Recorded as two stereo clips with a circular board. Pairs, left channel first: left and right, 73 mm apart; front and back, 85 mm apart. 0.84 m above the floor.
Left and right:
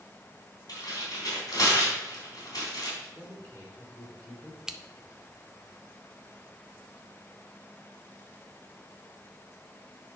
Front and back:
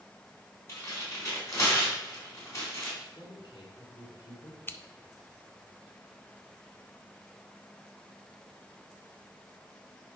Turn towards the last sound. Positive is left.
turn(degrees=-20)